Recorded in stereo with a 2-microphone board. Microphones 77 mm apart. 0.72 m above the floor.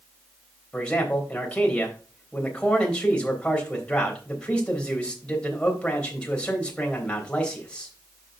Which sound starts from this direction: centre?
A man speaking, at 0.7 s.